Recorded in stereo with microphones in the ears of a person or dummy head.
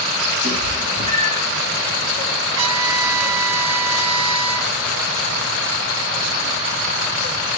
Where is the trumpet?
70° right (ahead or behind), 1.0 m.